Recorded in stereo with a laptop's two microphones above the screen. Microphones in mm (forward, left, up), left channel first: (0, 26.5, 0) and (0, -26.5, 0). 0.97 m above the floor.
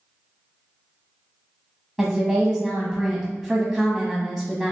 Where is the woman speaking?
10° left (ahead or behind), 0.9 m.